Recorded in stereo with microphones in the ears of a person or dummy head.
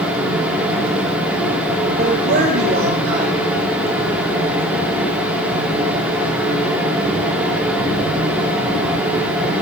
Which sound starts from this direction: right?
A man speaking, at 2.0 s.